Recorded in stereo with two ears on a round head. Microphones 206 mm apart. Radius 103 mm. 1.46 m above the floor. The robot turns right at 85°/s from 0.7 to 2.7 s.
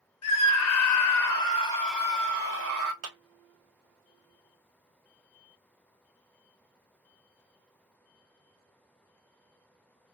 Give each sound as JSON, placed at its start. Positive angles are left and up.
{"t": 0.2, "sound": "a scream", "azimuth_deg": 80, "distance_m": 1.1}
{"t": 3.0, "sound": "a clap", "side_deg": -60, "distance_m": 1.1}